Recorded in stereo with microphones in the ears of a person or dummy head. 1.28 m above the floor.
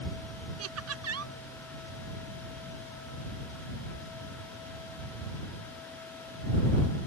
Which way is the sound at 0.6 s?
80° right.